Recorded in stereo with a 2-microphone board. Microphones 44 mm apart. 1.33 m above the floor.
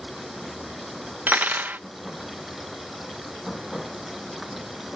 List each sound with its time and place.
0.0 s running water: 5° right (ahead or behind)
1.3 s cutlery clinking: 40° right (ahead or behind)